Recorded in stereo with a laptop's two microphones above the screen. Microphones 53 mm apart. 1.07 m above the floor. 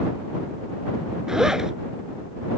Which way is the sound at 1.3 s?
10° right (ahead or behind).